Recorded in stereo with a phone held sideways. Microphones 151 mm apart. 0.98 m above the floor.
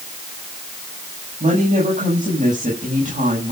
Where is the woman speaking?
55° right (ahead or behind), 8 m.